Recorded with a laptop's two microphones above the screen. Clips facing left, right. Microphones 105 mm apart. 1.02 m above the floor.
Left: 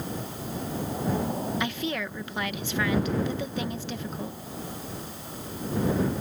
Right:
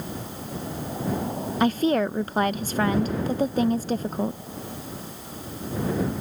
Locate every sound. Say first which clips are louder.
1.6 s a woman speaking: right 9 dB; 40° right (ahead or behind)